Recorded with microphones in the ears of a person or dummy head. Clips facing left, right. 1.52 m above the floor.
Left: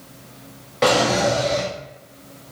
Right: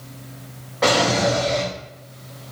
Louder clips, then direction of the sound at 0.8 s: Left 1 dB; 30° left (ahead or behind).